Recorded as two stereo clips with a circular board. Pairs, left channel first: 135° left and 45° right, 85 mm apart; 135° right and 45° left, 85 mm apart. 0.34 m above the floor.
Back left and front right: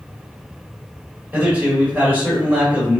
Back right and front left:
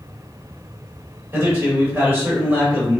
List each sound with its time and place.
1.3 s a man speaking: 15° left, 1.7 m